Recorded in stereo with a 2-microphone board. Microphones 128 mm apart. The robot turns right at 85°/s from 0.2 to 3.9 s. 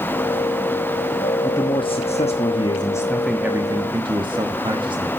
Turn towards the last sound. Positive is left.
turn(degrees=-125)